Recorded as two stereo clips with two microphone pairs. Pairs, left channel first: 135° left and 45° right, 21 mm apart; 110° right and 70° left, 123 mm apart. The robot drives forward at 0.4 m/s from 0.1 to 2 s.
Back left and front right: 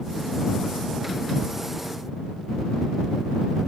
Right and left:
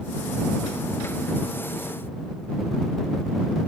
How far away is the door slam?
No door slam in this recording.